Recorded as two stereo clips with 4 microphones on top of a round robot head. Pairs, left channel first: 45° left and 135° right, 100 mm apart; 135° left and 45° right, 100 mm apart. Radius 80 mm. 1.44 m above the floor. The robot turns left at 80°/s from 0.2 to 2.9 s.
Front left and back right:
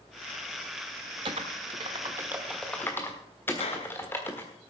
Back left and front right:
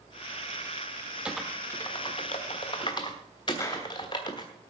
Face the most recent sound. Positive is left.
turn(degrees=75)